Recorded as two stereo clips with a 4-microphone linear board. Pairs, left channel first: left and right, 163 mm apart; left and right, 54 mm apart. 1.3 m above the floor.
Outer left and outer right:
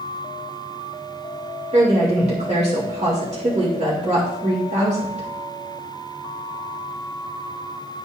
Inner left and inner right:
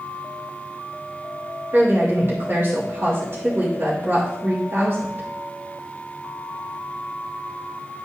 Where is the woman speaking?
45° right (ahead or behind), 2 m.